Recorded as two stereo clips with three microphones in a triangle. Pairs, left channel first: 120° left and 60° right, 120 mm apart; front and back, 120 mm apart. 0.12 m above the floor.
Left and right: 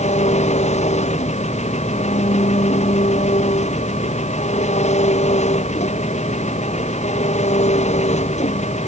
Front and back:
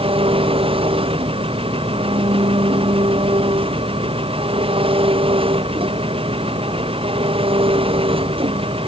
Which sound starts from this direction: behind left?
An engine running, at 0.0 s.